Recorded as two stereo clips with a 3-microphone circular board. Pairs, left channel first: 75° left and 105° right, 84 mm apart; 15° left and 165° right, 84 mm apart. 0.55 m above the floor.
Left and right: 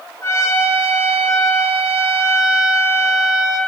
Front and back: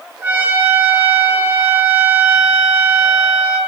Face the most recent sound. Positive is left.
turn(degrees=130)